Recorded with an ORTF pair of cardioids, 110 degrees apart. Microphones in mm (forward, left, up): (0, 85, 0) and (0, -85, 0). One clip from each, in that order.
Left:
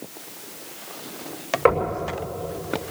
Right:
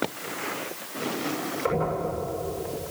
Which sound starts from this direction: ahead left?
Knocking, at 1.6 s.